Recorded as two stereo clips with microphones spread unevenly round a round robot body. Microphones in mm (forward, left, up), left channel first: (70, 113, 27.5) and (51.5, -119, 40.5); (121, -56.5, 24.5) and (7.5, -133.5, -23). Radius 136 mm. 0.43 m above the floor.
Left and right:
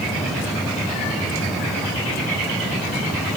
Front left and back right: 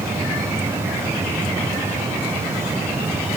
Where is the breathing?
I don't hear breathing.